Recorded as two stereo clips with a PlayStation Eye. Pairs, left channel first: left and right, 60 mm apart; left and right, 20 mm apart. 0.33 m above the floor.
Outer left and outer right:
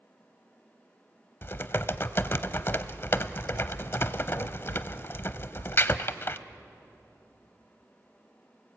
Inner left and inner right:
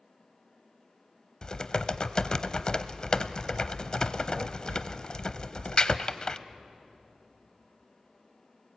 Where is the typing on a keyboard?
40° left (ahead or behind), 0.7 m.